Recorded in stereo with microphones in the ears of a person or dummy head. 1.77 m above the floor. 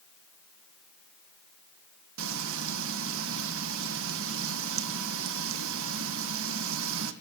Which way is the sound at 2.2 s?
80° right.